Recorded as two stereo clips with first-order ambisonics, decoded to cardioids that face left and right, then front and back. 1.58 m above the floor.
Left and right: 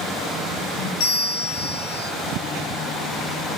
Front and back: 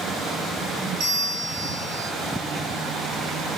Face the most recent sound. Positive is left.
turn(degrees=130)